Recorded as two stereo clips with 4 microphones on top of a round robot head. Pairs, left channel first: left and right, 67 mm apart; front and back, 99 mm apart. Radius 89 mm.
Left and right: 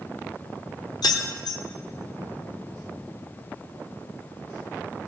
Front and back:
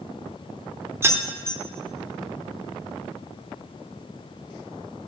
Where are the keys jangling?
115° left, 1.1 m.